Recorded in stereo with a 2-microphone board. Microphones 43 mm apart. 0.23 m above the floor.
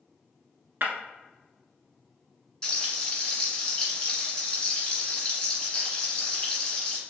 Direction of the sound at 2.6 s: 20° left (ahead or behind).